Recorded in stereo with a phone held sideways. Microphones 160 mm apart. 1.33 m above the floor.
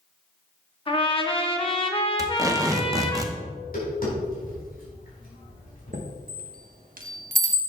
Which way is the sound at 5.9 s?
60° right (ahead or behind).